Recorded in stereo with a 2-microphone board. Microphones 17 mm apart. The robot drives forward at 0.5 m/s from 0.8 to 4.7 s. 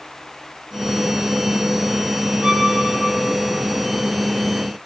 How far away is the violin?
About 2.5 m.